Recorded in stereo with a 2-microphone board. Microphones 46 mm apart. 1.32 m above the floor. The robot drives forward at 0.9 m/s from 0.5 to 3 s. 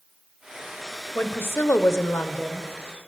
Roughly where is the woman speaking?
Left.